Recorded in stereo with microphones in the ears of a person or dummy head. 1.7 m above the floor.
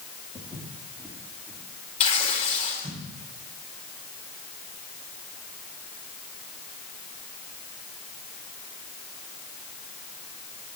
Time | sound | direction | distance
0.3 | footsteps | 5° left (ahead or behind) | 4.5 m
2.0 | tearing paper | 40° left (ahead or behind) | 3 m